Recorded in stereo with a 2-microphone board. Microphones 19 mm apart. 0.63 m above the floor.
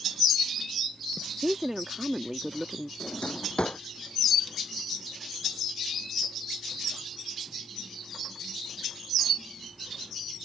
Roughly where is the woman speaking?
Centre.